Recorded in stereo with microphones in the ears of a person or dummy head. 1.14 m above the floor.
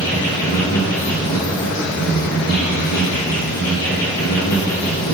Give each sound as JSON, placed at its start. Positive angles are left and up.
{"t": 0.0, "sound": "an insect", "side_deg": 60, "distance_m": 2.0}